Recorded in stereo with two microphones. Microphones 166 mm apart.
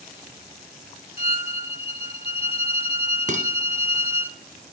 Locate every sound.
1.2 s a violin: 40° left (ahead or behind), 0.6 m
3.3 s dishes clattering: 50° right (ahead or behind), 1.8 m